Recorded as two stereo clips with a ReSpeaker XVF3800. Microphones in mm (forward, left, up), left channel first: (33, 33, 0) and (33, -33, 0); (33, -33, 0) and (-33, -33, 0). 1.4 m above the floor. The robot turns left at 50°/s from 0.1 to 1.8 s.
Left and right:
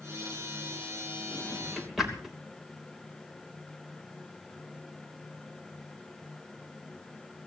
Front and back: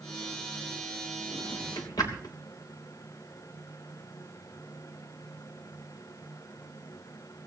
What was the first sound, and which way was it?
A drawer, 20° left.